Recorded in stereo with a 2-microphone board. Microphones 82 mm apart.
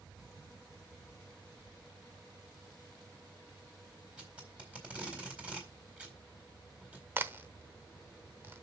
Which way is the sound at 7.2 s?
25° right (ahead or behind).